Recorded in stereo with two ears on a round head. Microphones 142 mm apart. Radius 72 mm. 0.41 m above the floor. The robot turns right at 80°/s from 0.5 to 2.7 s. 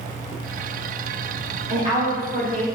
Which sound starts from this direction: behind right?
A woman speaking, at 1.7 s.